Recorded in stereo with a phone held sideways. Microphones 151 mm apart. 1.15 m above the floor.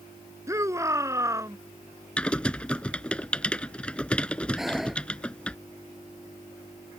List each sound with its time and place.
0.5 s a shout: 20° right (ahead or behind)
2.2 s typing on a keyboard: 5° left (ahead or behind)
4.6 s breathing: centre (ahead or behind)